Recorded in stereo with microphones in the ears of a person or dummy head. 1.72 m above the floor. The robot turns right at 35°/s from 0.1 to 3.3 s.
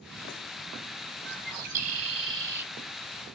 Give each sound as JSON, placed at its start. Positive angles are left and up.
{"t": 1.2, "sound": "a bird", "azimuth_deg": -60, "distance_m": 1.0}